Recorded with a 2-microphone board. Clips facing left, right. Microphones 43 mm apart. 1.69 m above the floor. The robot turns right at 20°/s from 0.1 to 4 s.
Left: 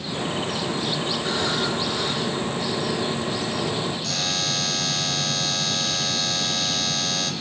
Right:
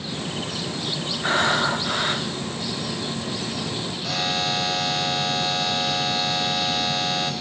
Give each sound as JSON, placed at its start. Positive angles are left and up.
{"t": 1.2, "sound": "breathing", "side_deg": -45, "distance_m": 0.9}
{"t": 4.0, "sound": "a buzzer", "side_deg": -15, "distance_m": 1.4}